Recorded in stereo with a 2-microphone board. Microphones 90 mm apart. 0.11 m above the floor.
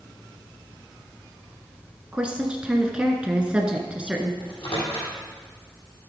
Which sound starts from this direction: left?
A microwave, at 4.4 s.